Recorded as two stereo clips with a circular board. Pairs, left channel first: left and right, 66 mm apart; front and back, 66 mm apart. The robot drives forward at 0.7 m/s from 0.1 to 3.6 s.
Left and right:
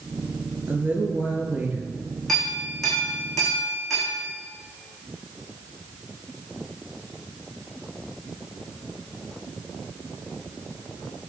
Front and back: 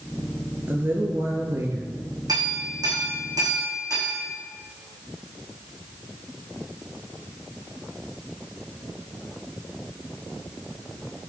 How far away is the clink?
About 4.5 m.